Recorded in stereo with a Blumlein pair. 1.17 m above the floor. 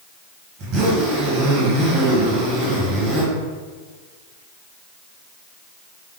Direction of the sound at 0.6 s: 30° right.